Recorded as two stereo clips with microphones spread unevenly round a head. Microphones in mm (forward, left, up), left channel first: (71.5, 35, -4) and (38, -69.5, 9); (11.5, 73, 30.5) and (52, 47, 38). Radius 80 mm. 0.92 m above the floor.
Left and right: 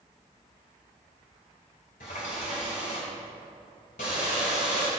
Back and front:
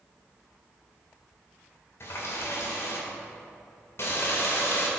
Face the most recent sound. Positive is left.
turn(degrees=115)